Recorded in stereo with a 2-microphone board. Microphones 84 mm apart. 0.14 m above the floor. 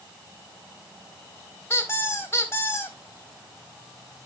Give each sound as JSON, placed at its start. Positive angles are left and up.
{"t": 1.7, "sound": "a squeak", "side_deg": 30, "distance_m": 2.5}